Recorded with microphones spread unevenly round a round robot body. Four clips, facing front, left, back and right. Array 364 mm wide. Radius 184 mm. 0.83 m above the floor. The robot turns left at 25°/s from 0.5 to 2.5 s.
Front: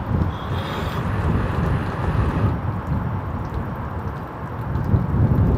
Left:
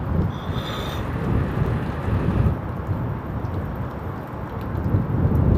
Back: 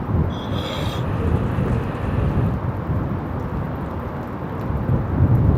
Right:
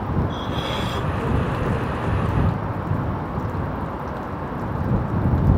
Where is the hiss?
160° right; by 1.1 s 175° right.